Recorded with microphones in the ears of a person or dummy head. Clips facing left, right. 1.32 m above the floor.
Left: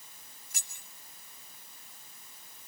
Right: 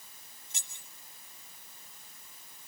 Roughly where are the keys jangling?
Right.